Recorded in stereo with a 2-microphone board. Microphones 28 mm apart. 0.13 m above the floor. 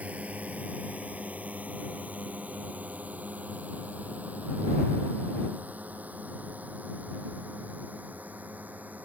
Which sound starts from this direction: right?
A drone, at 0.0 s.